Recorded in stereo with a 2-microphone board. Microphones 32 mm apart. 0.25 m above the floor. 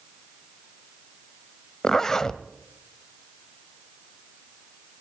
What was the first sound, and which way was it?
A zipper, 15° left (ahead or behind).